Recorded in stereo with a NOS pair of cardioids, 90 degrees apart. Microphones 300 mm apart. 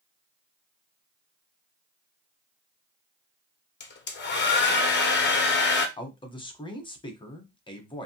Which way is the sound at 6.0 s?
15° left.